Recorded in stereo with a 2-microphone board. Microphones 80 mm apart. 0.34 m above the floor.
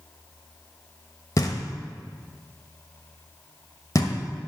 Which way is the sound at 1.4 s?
45° left (ahead or behind).